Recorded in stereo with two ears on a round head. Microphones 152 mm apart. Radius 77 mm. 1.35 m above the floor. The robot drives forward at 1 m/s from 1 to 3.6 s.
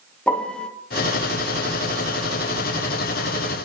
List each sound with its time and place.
0.3 s a piano: 5° left (ahead or behind), 0.6 m